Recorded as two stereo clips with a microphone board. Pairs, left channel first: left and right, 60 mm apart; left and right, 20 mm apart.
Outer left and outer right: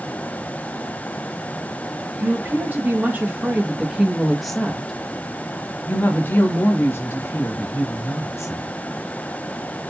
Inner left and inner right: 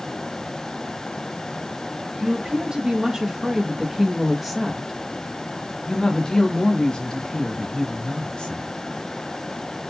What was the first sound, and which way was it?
A woman speaking, 40° right (ahead or behind).